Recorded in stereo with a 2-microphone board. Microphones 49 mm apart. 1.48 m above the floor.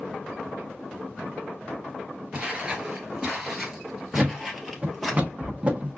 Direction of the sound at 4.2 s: 25° right (ahead or behind).